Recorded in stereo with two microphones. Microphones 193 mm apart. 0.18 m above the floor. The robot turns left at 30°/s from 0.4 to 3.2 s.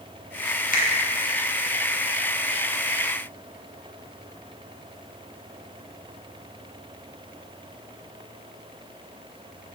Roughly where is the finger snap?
Left.